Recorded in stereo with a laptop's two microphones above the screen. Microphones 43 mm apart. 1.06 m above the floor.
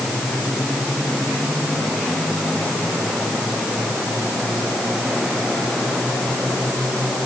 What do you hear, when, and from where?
Only background noise.